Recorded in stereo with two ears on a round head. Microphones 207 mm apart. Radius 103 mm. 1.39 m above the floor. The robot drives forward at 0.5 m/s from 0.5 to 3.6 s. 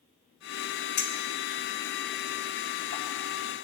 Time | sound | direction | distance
1.0 | a clink | 70° left (ahead or behind) | 2 m